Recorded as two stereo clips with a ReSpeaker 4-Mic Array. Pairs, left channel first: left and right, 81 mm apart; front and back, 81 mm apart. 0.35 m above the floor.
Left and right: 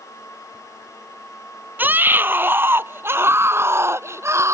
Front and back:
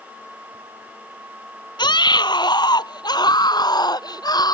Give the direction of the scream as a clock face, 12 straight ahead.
1 o'clock.